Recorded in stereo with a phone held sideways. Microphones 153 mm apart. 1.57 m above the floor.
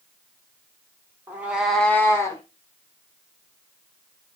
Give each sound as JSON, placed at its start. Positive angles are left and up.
{"t": 1.3, "sound": "a cat meowing", "side_deg": -15, "distance_m": 1.0}